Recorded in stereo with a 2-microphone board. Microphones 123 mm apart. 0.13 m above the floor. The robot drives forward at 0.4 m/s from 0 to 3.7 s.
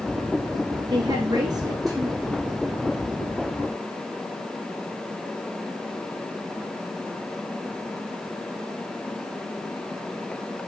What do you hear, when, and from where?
0.9 s a woman speaking: 35° right (ahead or behind), 1.7 m; by 2.4 s 25° right (ahead or behind), 2 m